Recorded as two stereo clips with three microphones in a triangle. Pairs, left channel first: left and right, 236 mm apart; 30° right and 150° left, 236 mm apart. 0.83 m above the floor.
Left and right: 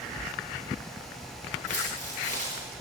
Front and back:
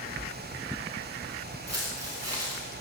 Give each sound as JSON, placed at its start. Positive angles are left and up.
{"t": 1.7, "sound": "footsteps", "azimuth_deg": 150, "distance_m": 7.0}